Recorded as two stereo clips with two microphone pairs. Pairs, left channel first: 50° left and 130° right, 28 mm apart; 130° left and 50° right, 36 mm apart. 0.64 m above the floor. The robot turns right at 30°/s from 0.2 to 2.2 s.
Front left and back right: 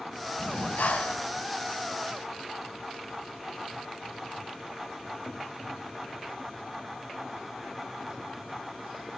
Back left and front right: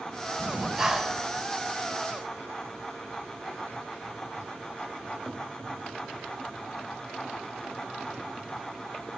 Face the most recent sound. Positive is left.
turn(degrees=80)